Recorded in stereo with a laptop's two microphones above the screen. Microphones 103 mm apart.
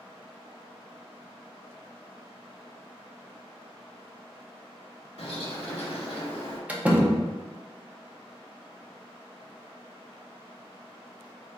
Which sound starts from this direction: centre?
A door slam, at 6.7 s.